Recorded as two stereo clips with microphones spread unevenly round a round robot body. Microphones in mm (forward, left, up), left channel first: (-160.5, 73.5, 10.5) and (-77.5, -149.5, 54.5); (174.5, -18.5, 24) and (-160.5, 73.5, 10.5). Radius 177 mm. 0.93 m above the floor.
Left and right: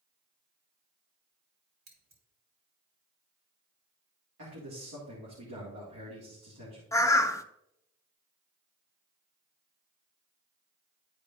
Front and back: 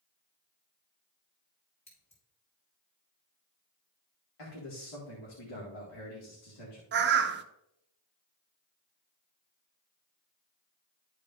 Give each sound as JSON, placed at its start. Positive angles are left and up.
{"t": 1.9, "sound": "scissors", "azimuth_deg": -85, "distance_m": 3.5}
{"t": 4.4, "sound": "a man speaking", "azimuth_deg": -30, "distance_m": 1.9}
{"t": 6.9, "sound": "a bird", "azimuth_deg": 160, "distance_m": 0.6}